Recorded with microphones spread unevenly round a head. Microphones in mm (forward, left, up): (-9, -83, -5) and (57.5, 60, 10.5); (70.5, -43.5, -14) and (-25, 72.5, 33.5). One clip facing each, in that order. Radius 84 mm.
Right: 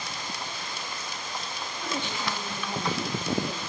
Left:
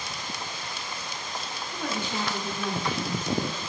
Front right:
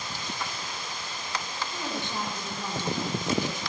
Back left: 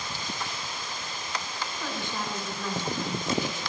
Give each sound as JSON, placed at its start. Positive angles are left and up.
{"t": 1.7, "sound": "a woman speaking", "azimuth_deg": 20, "distance_m": 10.0}